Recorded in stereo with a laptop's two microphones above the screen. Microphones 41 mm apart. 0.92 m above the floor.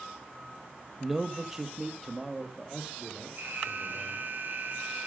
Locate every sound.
1.0 s a man speaking: 5° right (ahead or behind), 0.6 m; by 4.3 s 15° right (ahead or behind), 2.5 m
3.4 s an alarm: 55° right (ahead or behind), 6 m